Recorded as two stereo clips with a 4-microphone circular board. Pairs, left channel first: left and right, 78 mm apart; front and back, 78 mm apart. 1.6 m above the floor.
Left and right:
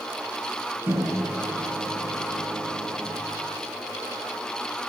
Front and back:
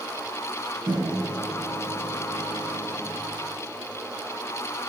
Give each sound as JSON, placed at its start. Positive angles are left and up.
{"t": 0.9, "sound": "a microwave", "azimuth_deg": -155, "distance_m": 1.3}